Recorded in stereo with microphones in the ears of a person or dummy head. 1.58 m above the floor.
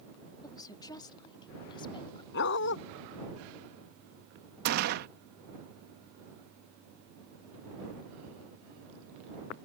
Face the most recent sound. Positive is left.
turn(degrees=-55)  # may be behind; listen again after turning